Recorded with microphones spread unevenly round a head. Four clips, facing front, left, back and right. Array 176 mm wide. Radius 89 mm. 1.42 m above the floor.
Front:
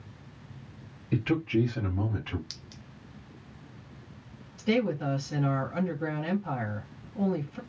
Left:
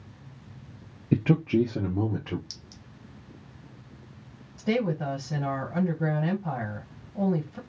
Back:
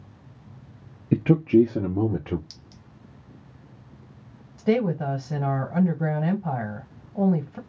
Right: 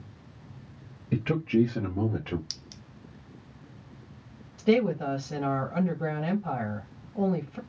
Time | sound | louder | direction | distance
1.1 | a man speaking | left 2 dB, back 9 dB | 135° left | 0.6 m
2.5 | a clink | right 1 dB, front 1 dB | 45° right | 0.6 m
4.6 | a woman speaking | right 3 dB, back 4 dB | straight behind | 1.2 m